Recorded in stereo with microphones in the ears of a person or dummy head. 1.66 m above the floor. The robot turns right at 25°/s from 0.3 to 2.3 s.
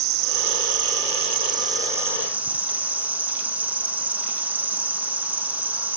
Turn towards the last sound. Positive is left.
turn(degrees=0)